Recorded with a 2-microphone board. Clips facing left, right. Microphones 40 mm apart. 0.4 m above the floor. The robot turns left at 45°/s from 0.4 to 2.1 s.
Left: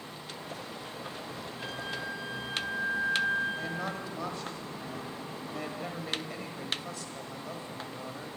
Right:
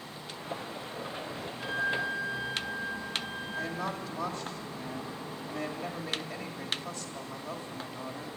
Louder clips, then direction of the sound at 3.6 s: Right 1 dB; centre (ahead or behind).